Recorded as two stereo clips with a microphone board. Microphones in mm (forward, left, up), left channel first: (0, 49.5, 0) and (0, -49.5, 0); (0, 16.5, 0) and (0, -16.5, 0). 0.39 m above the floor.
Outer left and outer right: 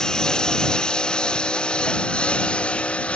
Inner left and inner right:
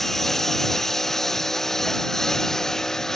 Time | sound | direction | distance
0.0 | a lawn mower | 5° left (ahead or behind) | ?